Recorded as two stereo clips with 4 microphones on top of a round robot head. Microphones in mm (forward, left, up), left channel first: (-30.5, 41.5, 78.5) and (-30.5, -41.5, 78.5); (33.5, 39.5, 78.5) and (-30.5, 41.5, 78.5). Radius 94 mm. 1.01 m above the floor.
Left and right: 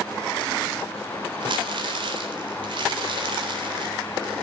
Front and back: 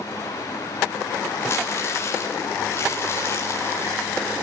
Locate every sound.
1.4 s crumpling: 60° right, 3.5 m